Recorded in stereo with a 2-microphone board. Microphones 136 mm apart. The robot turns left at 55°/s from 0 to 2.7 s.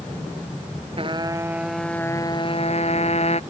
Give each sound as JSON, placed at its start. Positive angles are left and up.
{"t": 1.0, "sound": "a trumpet", "azimuth_deg": -135}